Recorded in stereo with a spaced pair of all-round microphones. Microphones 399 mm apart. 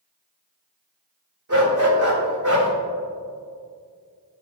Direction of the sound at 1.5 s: 45° right (ahead or behind).